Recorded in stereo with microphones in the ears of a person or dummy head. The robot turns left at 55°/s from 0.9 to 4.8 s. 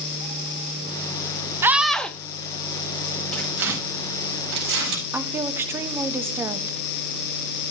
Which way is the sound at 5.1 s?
15° right (ahead or behind).